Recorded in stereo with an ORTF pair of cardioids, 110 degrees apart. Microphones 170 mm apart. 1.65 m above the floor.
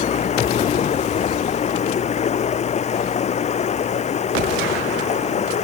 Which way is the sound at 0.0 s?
45° left.